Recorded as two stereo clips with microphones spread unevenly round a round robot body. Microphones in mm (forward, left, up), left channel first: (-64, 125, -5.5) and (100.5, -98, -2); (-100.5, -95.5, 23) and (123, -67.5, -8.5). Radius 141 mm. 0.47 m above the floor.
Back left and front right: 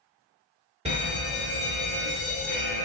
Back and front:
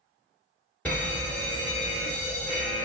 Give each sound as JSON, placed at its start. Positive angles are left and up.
{"t": 0.8, "sound": "a fire alarm", "azimuth_deg": -80, "distance_m": 1.7}